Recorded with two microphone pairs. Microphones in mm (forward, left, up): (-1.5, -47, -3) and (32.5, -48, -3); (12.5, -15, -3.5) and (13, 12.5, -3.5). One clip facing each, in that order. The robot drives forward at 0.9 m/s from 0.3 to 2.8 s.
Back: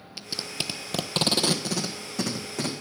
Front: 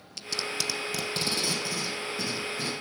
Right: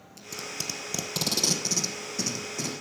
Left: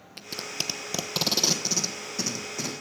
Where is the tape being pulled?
105° left, 0.6 m; by 2.7 s 165° left, 2.5 m.